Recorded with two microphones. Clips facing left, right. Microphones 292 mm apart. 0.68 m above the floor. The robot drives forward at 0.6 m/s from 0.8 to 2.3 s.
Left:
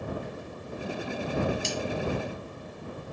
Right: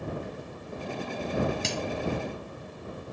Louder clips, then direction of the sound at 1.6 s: Even; 75° right (ahead or behind).